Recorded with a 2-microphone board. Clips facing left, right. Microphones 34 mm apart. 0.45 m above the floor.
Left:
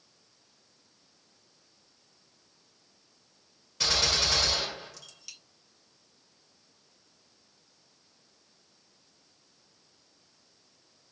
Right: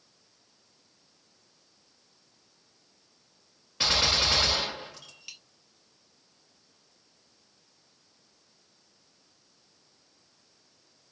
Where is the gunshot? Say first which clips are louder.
Right 2 dB; 30° right (ahead or behind), 1.3 m.